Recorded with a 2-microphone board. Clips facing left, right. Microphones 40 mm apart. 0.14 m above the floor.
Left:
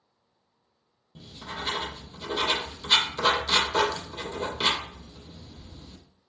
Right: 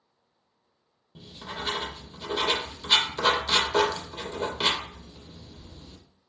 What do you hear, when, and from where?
1.1 s writing: 15° right (ahead or behind), 0.6 m